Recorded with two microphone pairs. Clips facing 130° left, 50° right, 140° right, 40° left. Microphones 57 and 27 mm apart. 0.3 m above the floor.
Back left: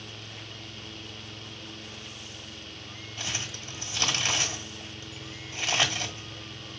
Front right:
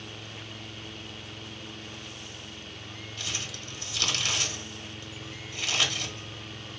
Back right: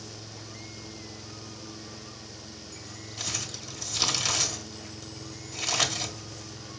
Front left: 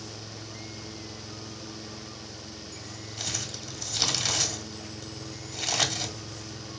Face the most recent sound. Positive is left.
turn(degrees=130)